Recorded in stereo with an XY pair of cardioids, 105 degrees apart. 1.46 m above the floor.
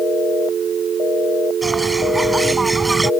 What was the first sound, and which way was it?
A bird, 15° right.